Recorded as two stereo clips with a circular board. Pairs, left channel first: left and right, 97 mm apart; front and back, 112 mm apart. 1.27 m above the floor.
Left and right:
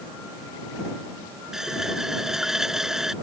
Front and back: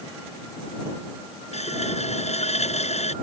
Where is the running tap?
5° right.